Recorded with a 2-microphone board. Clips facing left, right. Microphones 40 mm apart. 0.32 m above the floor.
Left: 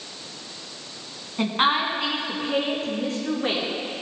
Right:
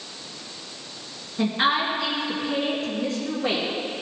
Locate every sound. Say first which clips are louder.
1.4 s a woman speaking: left 1 dB; 45° left (ahead or behind), 2.5 m